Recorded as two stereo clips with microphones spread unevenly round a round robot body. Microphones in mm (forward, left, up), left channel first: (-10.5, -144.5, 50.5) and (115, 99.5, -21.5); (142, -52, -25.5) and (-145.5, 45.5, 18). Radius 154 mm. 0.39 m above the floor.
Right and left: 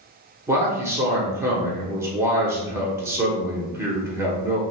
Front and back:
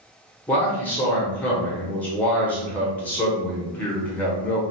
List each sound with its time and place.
0.5 s a man speaking: 40° left, 1.1 m